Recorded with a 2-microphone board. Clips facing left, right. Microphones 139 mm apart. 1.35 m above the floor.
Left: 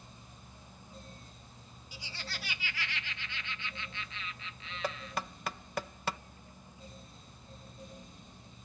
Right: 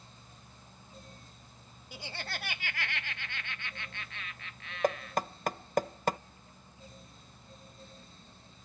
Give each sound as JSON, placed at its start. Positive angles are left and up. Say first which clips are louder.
{"t": 1.9, "sound": "laughter", "louder": "right 5 dB", "side_deg": -55}
{"t": 4.8, "sound": "knocking", "louder": "right 8 dB", "side_deg": -45}